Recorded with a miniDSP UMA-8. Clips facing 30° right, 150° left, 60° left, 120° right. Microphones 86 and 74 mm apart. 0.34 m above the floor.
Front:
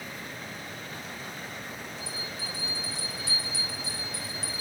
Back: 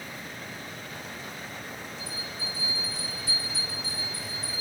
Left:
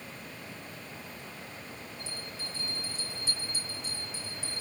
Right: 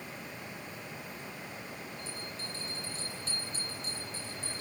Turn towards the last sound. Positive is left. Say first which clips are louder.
# even, even
turn(degrees=-20)